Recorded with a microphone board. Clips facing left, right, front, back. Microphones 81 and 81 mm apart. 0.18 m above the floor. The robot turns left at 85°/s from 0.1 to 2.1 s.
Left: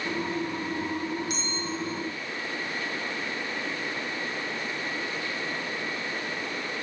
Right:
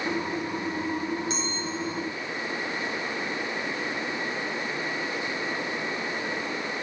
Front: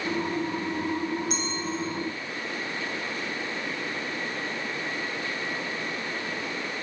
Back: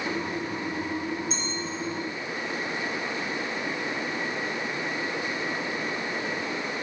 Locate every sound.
1.3 s a clink: 25° right, 4.5 m; by 1.6 s 45° right, 4.5 m